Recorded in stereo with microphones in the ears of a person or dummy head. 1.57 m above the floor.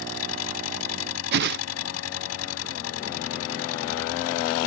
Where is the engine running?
80° left.